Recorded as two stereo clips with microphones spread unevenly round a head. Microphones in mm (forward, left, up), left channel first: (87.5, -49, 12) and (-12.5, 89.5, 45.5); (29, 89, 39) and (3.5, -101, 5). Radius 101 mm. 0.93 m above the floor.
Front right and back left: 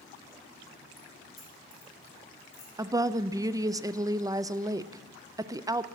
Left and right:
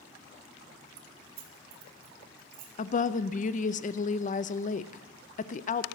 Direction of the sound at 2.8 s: 50° left.